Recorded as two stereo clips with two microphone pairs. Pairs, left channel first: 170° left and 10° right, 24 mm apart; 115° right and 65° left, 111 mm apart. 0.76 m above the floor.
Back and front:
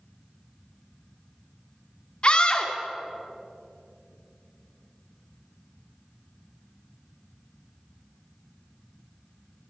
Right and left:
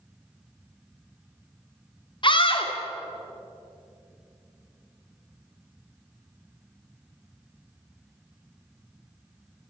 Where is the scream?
150° right, 2.5 m.